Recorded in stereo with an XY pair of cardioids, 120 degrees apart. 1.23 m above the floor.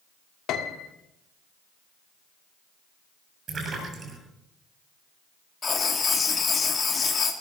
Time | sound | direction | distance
0.5 | a piano | 70° left | 1.7 m
3.5 | a splash | 35° right | 8 m
5.6 | writing | 30° left | 3 m